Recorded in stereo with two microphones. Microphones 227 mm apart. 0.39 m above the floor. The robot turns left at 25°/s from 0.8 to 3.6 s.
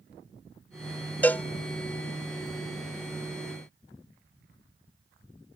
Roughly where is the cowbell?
Centre.